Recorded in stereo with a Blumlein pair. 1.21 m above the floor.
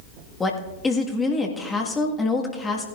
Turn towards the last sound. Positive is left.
turn(degrees=15)